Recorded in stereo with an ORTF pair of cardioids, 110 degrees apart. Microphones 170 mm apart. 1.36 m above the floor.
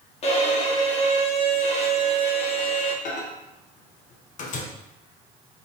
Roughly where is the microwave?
Ahead left.